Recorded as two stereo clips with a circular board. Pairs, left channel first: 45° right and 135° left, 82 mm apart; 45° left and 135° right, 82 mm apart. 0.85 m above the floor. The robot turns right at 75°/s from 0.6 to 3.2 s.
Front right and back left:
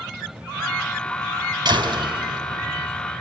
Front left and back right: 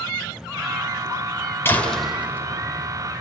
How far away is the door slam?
About 4 m.